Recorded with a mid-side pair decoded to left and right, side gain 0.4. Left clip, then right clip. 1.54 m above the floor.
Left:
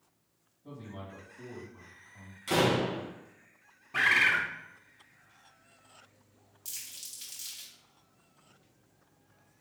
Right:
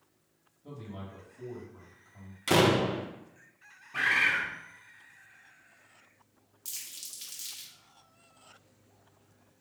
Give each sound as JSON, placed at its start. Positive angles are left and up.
{"t": 0.6, "sound": "a man speaking", "azimuth_deg": -20, "distance_m": 2.5}
{"t": 2.5, "sound": "a door slam", "azimuth_deg": -55, "distance_m": 0.9}
{"t": 3.9, "sound": "a bird", "azimuth_deg": 45, "distance_m": 0.8}
{"t": 6.7, "sound": "crumpling", "azimuth_deg": -10, "distance_m": 1.9}